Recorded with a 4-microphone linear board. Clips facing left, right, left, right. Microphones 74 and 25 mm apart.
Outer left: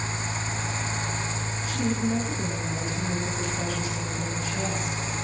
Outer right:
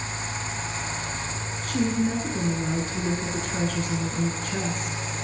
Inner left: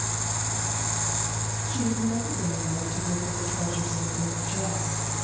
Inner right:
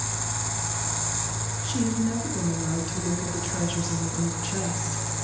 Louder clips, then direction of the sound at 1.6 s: Outer right 3 dB, inner right 2 dB; 55° right (ahead or behind).